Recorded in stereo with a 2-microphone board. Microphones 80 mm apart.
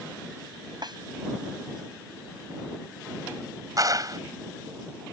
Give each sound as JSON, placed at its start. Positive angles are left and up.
{"t": 0.8, "sound": "a snare drum", "side_deg": -60}
{"t": 3.8, "sound": "a clap", "side_deg": -50}